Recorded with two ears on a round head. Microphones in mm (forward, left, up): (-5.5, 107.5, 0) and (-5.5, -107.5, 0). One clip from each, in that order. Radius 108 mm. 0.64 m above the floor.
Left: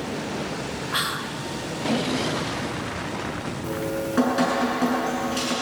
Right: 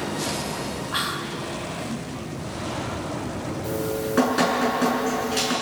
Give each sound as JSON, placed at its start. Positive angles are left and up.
{"t": 0.9, "sound": "whispering", "side_deg": 10, "distance_m": 0.6}
{"t": 3.6, "sound": "dripping", "side_deg": -10, "distance_m": 7.0}